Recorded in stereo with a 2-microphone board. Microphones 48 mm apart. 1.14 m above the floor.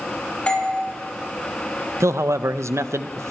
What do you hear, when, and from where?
0.5 s a doorbell: 25° left (ahead or behind), 3 m
2.0 s a man speaking: 80° right, 0.6 m